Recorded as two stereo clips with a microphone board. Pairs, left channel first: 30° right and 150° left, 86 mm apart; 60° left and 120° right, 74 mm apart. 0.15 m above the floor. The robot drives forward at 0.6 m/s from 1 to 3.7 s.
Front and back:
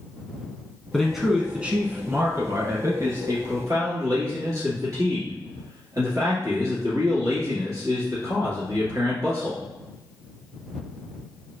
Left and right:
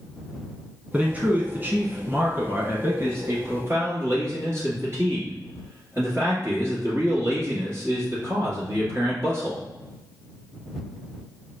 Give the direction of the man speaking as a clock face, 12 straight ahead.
4 o'clock.